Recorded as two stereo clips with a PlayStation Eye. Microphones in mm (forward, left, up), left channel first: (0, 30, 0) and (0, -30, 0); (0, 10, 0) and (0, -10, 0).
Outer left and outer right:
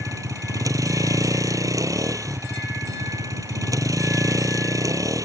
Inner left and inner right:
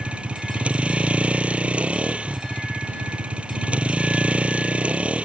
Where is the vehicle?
75° right (ahead or behind).